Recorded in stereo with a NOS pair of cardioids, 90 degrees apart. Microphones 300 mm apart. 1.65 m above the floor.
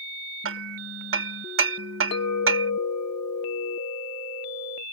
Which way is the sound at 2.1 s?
60° left.